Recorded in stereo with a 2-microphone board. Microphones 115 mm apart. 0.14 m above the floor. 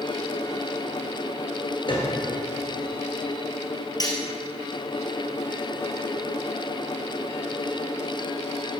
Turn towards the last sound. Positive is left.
turn(degrees=35)  # may be behind; listen again after turning